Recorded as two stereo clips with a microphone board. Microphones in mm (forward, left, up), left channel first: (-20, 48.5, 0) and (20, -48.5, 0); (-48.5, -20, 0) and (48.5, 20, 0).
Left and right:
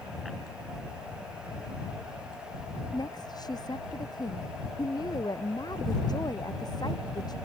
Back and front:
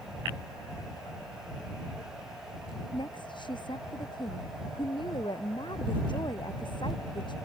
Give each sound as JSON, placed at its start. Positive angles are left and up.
{"t": 2.9, "sound": "a woman speaking", "azimuth_deg": 160}